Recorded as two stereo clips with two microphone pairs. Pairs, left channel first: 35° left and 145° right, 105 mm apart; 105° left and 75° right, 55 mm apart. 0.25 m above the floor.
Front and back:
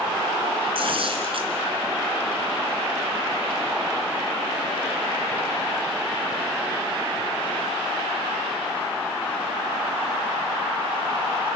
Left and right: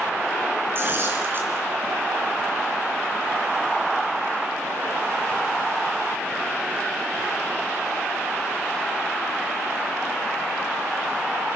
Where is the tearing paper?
120° right, 3 m.